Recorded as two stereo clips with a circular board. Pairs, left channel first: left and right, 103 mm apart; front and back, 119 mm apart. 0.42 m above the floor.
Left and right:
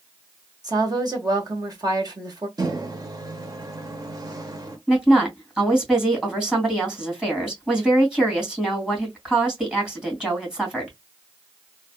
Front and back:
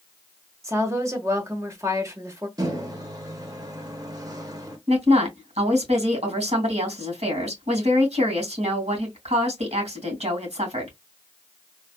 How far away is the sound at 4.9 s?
About 2 m.